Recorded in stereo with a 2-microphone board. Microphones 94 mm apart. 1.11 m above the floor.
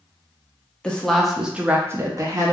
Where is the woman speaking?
10° left (ahead or behind), 0.8 m; by 2.5 s 40° right (ahead or behind), 0.7 m.